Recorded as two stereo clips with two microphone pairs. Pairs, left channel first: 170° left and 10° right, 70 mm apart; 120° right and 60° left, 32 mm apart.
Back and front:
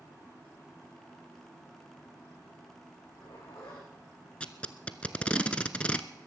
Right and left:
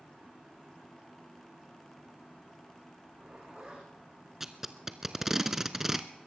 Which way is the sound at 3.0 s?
130° left.